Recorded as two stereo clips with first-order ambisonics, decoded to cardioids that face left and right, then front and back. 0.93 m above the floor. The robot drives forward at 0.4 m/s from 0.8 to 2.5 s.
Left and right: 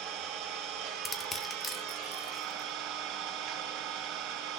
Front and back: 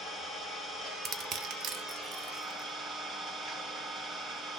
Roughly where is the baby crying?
I don't hear a baby crying.